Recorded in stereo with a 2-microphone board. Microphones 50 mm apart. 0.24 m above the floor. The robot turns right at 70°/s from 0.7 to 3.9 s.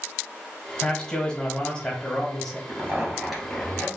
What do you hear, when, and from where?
0.8 s a man speaking: 15° left (ahead or behind), 1.2 m; by 2.6 s 5° left (ahead or behind), 1.2 m
2.7 s a zipper: 50° right, 2.5 m; by 3.9 s 30° left, 2.5 m